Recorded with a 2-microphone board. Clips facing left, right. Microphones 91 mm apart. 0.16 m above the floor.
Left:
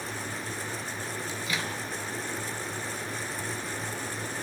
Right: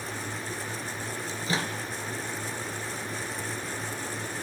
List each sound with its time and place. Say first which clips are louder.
1.3 s a microwave: right 4 dB; 30° right (ahead or behind), 2.5 m